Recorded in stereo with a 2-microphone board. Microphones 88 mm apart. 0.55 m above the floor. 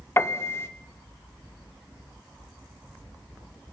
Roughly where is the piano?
Left.